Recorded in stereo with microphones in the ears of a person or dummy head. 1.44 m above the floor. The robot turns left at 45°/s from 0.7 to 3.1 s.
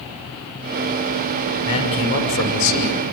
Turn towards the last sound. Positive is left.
turn(degrees=90)